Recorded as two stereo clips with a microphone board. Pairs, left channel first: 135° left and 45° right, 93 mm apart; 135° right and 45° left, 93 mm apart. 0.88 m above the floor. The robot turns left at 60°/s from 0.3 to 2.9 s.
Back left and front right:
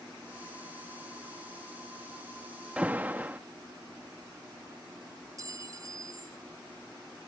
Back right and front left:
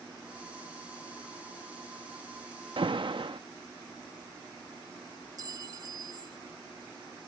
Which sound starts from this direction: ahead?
A clink, at 5.4 s.